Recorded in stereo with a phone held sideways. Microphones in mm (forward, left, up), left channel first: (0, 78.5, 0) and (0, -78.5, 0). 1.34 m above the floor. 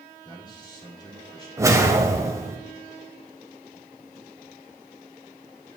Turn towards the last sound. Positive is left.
turn(degrees=-20)  # may be behind; listen again after turning